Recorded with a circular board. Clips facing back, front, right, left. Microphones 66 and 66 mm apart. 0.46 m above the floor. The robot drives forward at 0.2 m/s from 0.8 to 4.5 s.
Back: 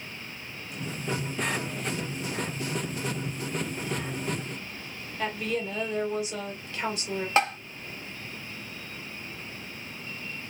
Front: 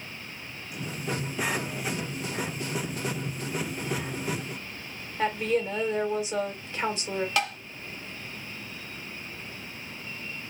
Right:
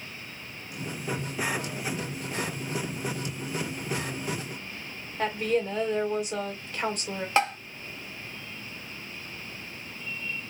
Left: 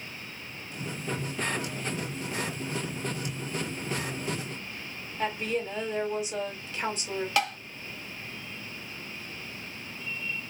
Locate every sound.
5.2 s a woman speaking: 65° right, 3 m
7.4 s tapping: 140° right, 0.7 m